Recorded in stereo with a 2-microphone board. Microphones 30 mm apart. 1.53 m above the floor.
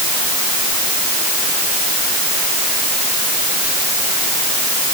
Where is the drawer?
I don't hear a drawer.